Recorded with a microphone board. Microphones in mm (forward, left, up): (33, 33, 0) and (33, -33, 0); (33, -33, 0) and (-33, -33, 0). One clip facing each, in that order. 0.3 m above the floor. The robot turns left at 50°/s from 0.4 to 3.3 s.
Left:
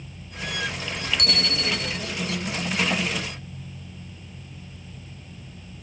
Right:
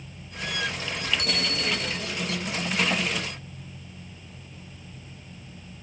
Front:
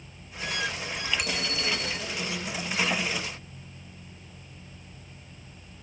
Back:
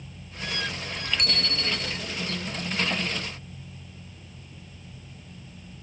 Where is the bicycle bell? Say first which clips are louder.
Left 1 dB, even; 85° left, 4 m; by 2.0 s 45° left, 4 m.